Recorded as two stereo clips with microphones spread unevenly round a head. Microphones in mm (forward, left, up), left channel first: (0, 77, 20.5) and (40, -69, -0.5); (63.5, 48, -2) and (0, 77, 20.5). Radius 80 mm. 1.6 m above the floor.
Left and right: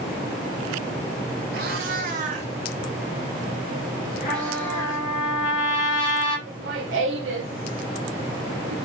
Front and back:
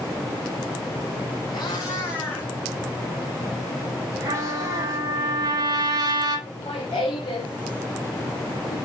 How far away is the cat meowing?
About 2.0 m.